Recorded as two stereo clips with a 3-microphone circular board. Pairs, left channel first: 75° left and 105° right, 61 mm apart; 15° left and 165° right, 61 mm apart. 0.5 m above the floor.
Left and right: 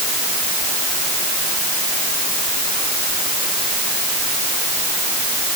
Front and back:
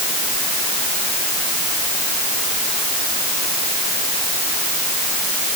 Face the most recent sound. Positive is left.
No sound to turn to.